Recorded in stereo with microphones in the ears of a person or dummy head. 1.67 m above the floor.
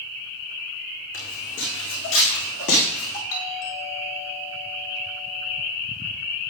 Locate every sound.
1.1 s footsteps: 70° left (ahead or behind), 8 m; by 3.2 s 75° left (ahead or behind), 6.5 m
3.3 s a doorbell: 70° left (ahead or behind), 5.5 m